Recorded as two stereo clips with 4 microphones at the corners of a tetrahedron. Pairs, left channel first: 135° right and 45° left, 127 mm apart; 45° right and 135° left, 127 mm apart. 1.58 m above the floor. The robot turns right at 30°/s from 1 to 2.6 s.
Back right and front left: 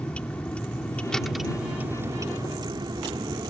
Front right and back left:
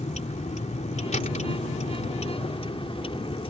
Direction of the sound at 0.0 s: 55° right.